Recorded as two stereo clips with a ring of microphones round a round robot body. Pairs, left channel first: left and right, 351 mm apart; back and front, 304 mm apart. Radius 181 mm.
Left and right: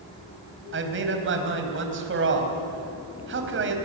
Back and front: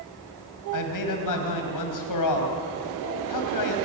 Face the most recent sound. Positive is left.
turn(degrees=-150)